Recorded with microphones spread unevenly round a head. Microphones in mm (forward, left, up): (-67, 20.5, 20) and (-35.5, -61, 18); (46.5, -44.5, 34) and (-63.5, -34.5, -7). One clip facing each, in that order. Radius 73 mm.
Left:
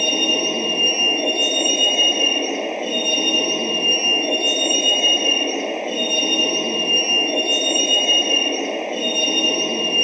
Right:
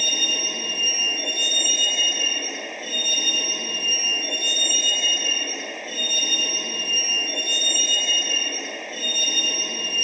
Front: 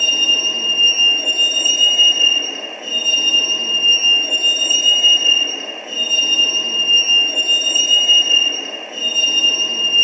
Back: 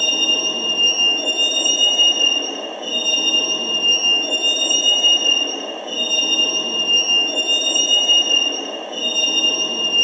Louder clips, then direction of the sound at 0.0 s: Left 9 dB, back 2 dB; 90° left.